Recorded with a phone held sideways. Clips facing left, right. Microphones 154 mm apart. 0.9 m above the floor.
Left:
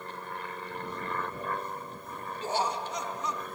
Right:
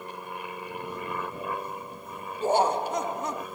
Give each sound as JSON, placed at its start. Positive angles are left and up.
{"t": 0.0, "sound": "an aircraft", "side_deg": -15}
{"t": 2.4, "sound": "laughter", "side_deg": -50}